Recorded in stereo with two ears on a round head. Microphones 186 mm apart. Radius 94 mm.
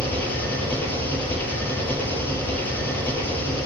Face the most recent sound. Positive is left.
turn(degrees=10)  # may be behind; listen again after turning